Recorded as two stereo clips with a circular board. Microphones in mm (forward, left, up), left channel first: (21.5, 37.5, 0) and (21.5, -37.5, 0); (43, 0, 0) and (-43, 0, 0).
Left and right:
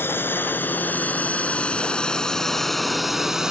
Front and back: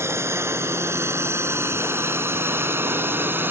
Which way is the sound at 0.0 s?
135° left.